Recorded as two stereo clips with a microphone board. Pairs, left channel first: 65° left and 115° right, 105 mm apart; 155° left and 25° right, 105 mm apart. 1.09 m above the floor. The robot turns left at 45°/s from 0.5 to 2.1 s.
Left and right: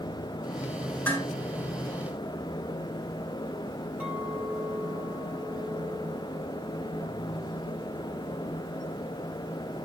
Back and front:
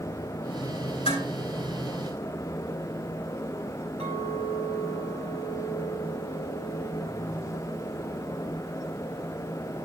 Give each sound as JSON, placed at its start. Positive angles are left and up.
{"t": 1.1, "sound": "dishes clattering", "azimuth_deg": 140, "distance_m": 7.5}
{"t": 4.0, "sound": "a clink", "azimuth_deg": -40, "distance_m": 5.0}